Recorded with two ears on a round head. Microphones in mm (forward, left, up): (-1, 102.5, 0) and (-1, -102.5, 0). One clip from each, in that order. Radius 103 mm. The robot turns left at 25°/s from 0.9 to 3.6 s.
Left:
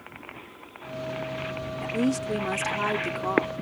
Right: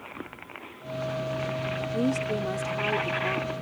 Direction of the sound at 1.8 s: 150° left.